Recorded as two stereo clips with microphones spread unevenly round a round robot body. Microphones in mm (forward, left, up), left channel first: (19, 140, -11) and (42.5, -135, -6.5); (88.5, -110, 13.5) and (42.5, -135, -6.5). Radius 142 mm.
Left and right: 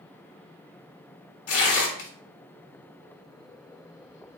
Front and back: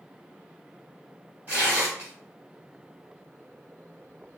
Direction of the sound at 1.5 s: 125° left.